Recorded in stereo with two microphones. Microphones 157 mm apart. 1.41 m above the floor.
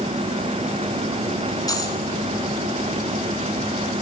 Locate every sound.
1.7 s a dropped coin: 25° left (ahead or behind), 5 m